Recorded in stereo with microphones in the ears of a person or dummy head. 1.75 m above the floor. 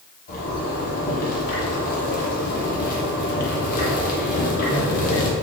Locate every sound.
0.3 s a zipper: 45° left (ahead or behind), 1.0 m